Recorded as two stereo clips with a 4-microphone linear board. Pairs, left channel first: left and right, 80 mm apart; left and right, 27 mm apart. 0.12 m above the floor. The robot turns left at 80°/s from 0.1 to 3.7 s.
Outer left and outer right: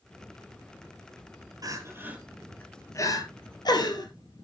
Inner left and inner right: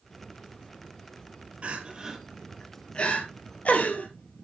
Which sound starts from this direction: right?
Crying, at 1.6 s.